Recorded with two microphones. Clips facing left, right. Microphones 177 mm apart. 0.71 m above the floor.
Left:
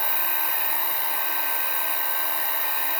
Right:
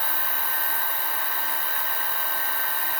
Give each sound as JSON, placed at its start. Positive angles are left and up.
{"t": 0.0, "sound": "an insect", "side_deg": -30, "distance_m": 2.0}